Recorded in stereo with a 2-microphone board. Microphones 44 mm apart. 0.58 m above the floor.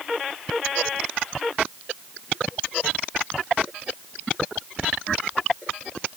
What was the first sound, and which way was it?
Only background noise.